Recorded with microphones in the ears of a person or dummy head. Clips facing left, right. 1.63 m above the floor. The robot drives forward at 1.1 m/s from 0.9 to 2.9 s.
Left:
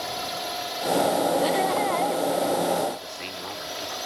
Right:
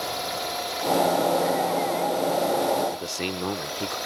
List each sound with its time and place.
0.0 s a drone: 5° left (ahead or behind)
1.4 s laughter: 45° left (ahead or behind); by 2.2 s 35° left (ahead or behind)
2.9 s a man speaking: 60° right (ahead or behind)